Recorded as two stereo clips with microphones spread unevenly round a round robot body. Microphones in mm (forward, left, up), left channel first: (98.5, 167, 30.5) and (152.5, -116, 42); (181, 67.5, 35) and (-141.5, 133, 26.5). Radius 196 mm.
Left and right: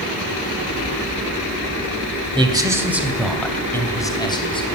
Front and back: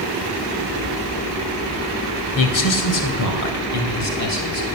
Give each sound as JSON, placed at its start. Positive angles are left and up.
{"t": 2.4, "sound": "a man speaking", "azimuth_deg": -5, "distance_m": 3.0}